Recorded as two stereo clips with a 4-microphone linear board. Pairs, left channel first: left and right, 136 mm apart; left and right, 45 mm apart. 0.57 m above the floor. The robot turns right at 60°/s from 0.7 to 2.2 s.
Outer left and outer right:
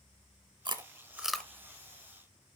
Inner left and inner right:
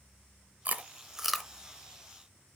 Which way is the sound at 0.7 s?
35° right (ahead or behind).